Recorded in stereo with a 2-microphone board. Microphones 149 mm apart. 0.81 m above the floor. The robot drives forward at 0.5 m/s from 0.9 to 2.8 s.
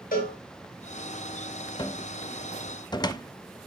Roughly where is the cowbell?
Left.